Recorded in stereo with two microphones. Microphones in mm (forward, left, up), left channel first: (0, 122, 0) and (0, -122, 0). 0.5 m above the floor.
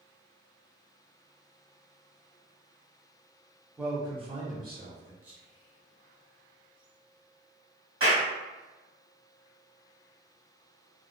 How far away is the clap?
About 1.6 m.